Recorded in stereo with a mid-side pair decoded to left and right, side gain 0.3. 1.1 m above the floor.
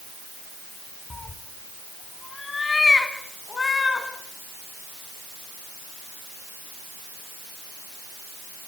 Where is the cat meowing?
35° left, 3.5 m; by 4.1 s 45° left, 6 m.